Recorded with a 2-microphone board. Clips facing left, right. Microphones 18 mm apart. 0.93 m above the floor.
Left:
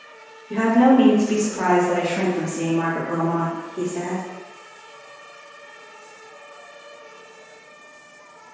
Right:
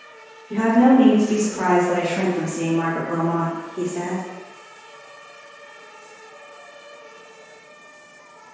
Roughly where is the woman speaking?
Left.